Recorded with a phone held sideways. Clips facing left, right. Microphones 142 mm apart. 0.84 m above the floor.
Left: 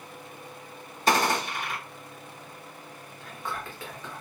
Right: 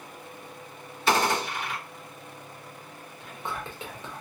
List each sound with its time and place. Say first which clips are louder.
1.1 s a gunshot: even; 40° left (ahead or behind), 1.3 m
3.2 s whispering: right 1 dB; 20° right (ahead or behind), 0.8 m